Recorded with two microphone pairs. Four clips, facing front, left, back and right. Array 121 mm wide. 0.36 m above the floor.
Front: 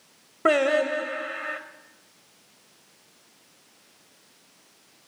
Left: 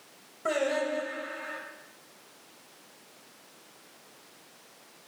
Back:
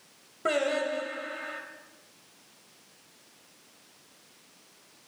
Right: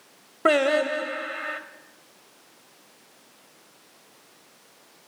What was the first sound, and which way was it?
Singing, 55° right.